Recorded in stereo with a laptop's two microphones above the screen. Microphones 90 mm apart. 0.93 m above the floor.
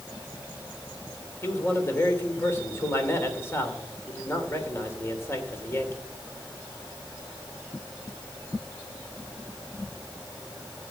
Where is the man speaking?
25° left (ahead or behind), 2.5 m.